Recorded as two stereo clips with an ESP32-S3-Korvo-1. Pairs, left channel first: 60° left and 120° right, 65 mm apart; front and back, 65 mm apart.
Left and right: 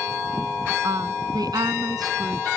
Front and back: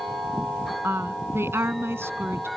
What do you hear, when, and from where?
0.8 s a woman speaking: 130° right